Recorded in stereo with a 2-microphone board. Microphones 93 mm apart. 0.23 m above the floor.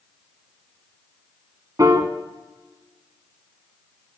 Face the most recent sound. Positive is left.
turn(degrees=-40)  # may be behind; listen again after turning